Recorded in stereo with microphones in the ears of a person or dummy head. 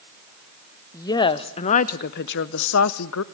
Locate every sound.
0.9 s a woman speaking: 25° left (ahead or behind), 1.1 m; by 3.2 s 80° left, 1.0 m